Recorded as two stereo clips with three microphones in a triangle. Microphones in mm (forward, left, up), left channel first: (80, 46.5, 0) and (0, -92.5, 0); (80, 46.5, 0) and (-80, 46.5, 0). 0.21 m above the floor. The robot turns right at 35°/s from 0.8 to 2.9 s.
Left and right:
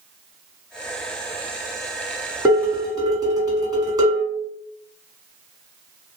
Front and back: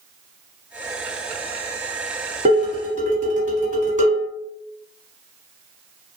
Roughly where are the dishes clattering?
Behind.